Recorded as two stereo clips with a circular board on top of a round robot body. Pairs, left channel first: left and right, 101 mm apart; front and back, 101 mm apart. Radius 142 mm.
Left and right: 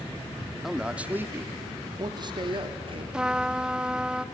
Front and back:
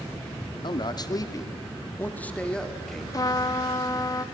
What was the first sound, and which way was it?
A man speaking, 5° right.